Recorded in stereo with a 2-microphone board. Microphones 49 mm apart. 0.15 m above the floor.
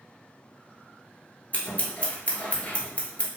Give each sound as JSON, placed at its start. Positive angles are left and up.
{"t": 1.5, "sound": "scissors", "side_deg": 35, "distance_m": 1.0}